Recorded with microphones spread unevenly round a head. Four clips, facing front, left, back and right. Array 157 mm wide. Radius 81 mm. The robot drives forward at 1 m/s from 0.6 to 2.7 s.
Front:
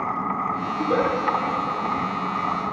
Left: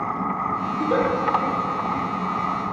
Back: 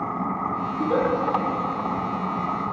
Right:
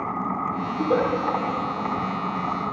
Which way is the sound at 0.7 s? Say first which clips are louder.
Even, even; 85° right.